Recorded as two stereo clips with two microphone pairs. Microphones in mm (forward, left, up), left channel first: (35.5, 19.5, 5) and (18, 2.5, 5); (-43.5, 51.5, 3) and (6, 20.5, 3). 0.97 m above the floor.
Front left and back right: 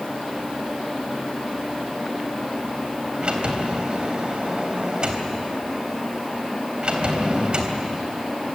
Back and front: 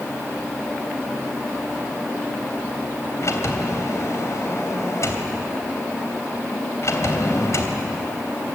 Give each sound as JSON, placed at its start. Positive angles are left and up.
{"t": 3.2, "sound": "a sliding door", "azimuth_deg": 175, "distance_m": 3.0}